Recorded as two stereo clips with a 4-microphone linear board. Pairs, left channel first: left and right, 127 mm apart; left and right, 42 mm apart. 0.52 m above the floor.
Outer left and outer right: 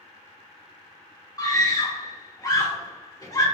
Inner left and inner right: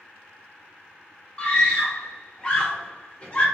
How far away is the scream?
About 1.2 m.